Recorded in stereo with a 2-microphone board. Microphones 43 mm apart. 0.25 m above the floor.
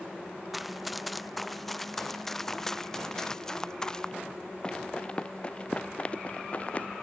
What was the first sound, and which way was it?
Running footsteps, centre (ahead or behind).